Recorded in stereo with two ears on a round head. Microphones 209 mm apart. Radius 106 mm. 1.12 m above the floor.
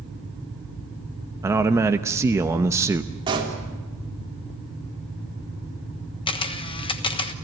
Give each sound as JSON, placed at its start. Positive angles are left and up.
{"t": 1.4, "sound": "a man speaking", "side_deg": -15, "distance_m": 0.8}
{"t": 3.3, "sound": "a pop", "side_deg": -25, "distance_m": 3.5}
{"t": 6.3, "sound": "a camera shutter", "side_deg": 25, "distance_m": 1.2}